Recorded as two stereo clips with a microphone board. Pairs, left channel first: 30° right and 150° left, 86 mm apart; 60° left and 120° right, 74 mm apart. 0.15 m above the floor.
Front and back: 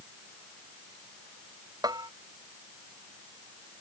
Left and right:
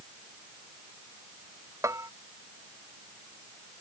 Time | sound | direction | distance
1.8 | a bell | 170° right | ?